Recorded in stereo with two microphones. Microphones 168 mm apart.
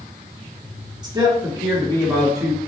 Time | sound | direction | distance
1.0 | a man speaking | 25° right (ahead or behind) | 1.5 m